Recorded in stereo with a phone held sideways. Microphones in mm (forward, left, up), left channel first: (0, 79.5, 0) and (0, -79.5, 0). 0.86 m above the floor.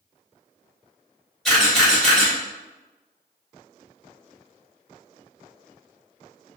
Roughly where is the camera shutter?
Centre.